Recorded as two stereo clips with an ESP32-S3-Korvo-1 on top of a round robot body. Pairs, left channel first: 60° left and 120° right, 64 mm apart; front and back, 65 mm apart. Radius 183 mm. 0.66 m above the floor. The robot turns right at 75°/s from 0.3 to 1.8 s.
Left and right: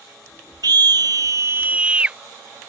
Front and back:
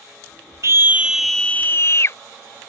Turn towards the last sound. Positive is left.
turn(degrees=-50)